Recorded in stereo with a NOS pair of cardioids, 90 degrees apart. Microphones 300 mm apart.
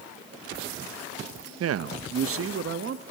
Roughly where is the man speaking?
Ahead right.